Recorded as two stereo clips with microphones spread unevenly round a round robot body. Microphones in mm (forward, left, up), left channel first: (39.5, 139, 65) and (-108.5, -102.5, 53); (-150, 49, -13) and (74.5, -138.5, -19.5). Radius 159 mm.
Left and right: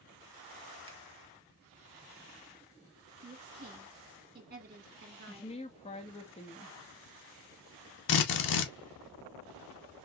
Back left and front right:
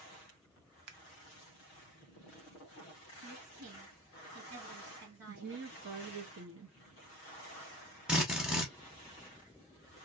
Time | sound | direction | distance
0.9 | scissors | 50° right | 0.8 m
3.2 | a woman speaking | 70° right | 1.6 m
5.3 | a woman speaking | 5° right | 0.8 m
8.1 | a drill | 50° left | 0.9 m